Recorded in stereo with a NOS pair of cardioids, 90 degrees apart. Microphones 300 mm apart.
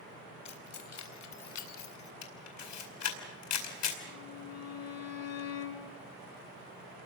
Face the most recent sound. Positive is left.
turn(degrees=60)